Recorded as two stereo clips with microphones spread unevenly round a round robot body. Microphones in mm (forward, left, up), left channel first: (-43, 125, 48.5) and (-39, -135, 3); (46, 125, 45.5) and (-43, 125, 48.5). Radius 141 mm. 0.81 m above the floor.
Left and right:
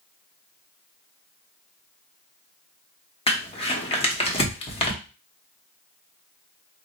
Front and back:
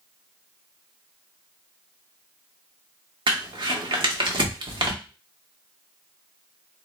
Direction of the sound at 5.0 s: 75° left.